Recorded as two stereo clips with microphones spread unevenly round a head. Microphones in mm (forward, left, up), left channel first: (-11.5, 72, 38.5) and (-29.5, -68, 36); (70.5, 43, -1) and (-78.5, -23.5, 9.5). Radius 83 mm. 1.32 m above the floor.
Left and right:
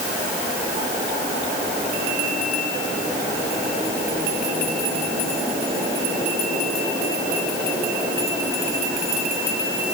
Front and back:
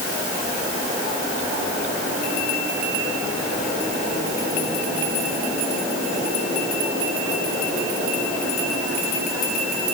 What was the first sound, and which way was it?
Only background noise.